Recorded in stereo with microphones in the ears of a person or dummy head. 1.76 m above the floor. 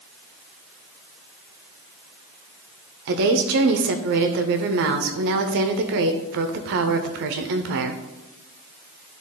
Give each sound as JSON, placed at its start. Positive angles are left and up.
{"t": 3.1, "sound": "a woman speaking", "side_deg": -55, "distance_m": 0.7}